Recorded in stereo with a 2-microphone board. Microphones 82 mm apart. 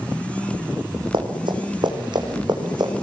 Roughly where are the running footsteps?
Right.